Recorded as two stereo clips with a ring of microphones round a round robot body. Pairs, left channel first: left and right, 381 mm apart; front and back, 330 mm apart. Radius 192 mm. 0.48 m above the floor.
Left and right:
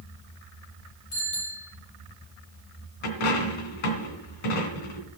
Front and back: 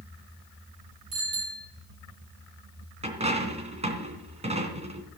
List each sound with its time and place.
1.1 s a bicycle bell: 140° left, 9 m
3.0 s a dropped coin: 110° left, 3 m